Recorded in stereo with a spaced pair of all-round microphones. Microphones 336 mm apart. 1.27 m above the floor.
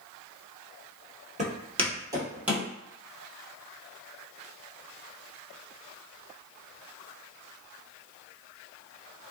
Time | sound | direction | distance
1.4 | footsteps | 20° right (ahead or behind) | 1.3 m